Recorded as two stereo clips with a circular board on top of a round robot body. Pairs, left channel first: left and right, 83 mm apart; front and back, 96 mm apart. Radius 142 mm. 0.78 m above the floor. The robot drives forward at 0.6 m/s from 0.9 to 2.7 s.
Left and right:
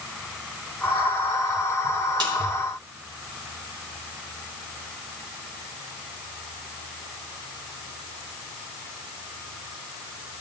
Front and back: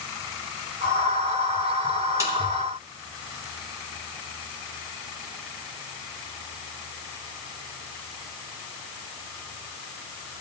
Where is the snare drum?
120° right, 3.5 m.